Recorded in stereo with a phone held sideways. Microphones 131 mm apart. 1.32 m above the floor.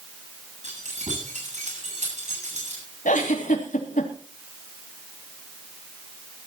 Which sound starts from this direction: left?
A giggle, at 3.0 s.